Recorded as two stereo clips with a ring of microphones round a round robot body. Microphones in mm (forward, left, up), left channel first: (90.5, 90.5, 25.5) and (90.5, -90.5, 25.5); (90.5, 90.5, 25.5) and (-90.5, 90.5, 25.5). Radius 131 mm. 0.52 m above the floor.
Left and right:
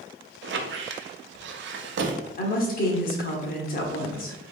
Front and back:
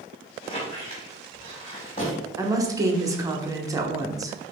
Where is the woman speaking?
115° left, 1.0 m.